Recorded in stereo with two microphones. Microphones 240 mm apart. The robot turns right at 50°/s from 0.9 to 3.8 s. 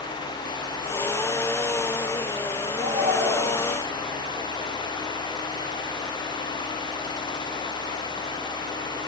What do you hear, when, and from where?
2.7 s a shout: 35° right, 9 m; by 3.7 s 10° left, 9 m